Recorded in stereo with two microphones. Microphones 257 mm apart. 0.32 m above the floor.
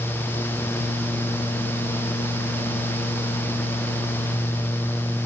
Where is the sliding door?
I don't hear a sliding door.